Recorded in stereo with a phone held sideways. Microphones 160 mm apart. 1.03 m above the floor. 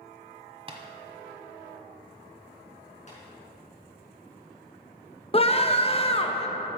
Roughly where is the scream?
Left.